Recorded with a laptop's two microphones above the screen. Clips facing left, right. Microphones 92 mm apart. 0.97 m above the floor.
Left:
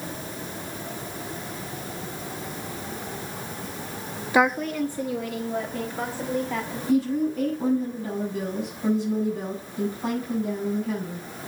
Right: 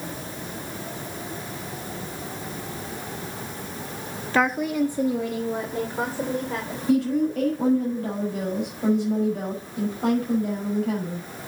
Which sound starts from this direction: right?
A woman speaking, at 6.9 s.